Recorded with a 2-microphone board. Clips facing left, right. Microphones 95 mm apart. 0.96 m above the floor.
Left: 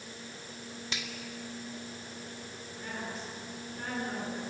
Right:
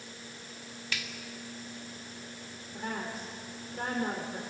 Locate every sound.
0.9 s a finger snap: 25° left (ahead or behind), 1.9 m
2.7 s a woman speaking: 60° right (ahead or behind), 3.5 m